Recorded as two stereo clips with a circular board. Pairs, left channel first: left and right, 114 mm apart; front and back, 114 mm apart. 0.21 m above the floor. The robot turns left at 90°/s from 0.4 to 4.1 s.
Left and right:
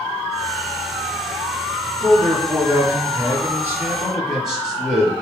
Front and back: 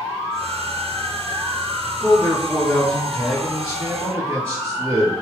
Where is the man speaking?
25° left, 1.2 m; by 5.1 s 165° right, 1.2 m.